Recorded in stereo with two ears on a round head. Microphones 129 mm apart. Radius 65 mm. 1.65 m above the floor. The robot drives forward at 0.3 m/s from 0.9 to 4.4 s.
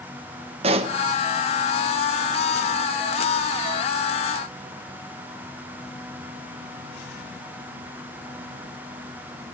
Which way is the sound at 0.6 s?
40° right (ahead or behind).